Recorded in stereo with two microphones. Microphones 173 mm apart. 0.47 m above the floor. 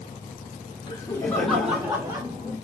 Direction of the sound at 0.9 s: 25° left (ahead or behind).